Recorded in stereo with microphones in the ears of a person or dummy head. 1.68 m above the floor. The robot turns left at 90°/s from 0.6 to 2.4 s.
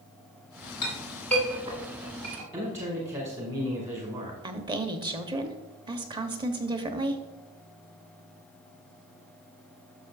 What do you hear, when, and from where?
0.8 s a clink: 45° left (ahead or behind), 3 m; by 2.4 s 70° right (ahead or behind), 3 m
2.5 s a man speaking: 35° right (ahead or behind), 1.9 m
4.4 s a woman speaking: 20° right (ahead or behind), 0.8 m